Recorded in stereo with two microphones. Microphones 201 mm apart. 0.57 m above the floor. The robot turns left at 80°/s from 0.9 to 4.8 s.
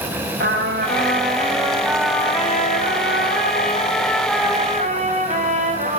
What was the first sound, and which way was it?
A trumpet, 90° right.